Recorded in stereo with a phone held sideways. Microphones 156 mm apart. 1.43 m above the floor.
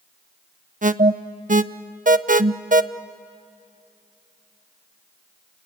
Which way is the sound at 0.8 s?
55° right (ahead or behind).